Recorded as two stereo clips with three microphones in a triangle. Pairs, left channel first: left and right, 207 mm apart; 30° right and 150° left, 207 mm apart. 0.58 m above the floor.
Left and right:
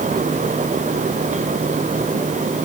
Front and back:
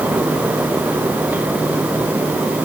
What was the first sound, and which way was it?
Only background noise.